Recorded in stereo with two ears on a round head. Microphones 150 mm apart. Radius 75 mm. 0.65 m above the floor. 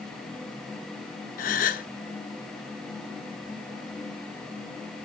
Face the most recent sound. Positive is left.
turn(degrees=50)  # may be behind; listen again after turning